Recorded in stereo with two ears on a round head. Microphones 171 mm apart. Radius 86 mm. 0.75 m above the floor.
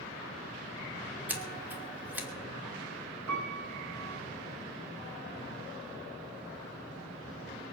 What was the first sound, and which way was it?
Scissors, 10° right (ahead or behind).